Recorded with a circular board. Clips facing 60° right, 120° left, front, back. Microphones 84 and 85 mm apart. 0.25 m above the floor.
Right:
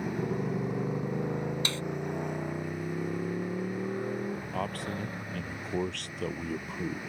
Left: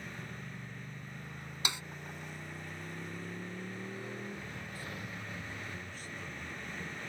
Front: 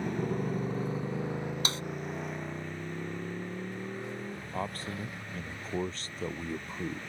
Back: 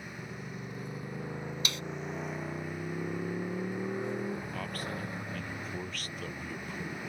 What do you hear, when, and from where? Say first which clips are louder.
0.0 s a motorcycle: right 14 dB, front 11 dB; 35° right; by 7.1 s 120° right
1.6 s a snare drum: right 4 dB, front 3 dB; 50° left
4.5 s a man speaking: right 11 dB, front 2 dB; 60° right